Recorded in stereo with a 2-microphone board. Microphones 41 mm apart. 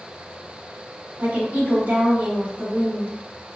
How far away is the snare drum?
I don't hear a snare drum.